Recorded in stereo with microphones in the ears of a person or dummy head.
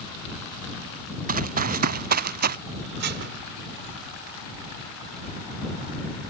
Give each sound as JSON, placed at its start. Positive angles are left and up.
{"t": 1.3, "sound": "running footsteps", "side_deg": -45}
{"t": 3.0, "sound": "dishes clattering", "side_deg": -55}